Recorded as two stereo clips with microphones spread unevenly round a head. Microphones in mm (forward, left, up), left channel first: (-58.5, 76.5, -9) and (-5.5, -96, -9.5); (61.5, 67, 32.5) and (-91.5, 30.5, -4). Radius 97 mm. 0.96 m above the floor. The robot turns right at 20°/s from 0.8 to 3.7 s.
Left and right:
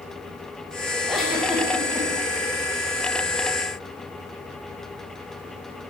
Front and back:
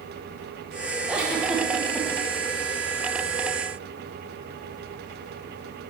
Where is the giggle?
165° right, 0.8 m; by 2.1 s 145° right, 0.8 m.